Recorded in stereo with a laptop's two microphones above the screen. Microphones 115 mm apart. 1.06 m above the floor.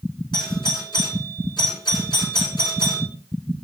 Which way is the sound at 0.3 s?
40° left (ahead or behind).